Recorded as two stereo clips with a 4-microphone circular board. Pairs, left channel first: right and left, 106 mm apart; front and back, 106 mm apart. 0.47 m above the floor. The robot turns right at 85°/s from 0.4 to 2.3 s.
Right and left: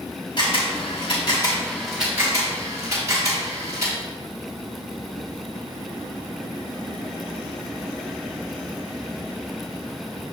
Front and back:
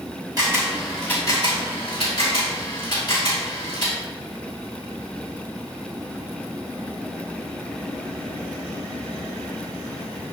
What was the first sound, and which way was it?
A camera shutter, 130° right.